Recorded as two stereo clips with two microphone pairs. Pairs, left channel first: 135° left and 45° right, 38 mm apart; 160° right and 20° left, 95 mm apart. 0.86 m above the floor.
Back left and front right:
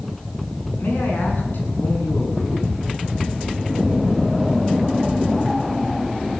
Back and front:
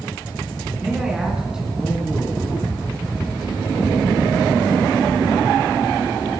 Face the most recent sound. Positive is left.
turn(degrees=100)